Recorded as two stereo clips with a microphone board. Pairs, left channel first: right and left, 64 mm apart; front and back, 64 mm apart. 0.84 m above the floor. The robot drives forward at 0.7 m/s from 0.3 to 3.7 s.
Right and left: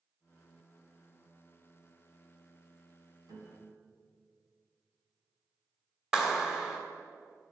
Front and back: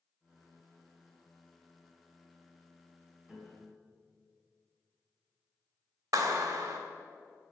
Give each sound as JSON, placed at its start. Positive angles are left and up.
{"t": 3.3, "sound": "a piano", "azimuth_deg": 100, "distance_m": 3.5}
{"t": 6.1, "sound": "a clap", "azimuth_deg": 170, "distance_m": 2.5}